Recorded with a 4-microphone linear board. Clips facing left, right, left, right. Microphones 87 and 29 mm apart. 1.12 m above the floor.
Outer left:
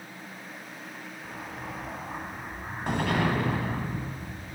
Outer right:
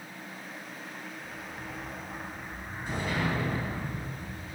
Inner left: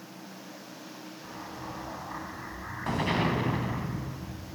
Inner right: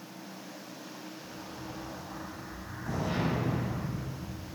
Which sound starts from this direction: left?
An explosion, at 1.2 s.